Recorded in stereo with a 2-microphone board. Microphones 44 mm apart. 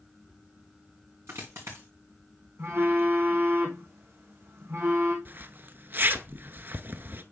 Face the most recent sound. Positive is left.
turn(degrees=-50)  # may be behind; listen again after turning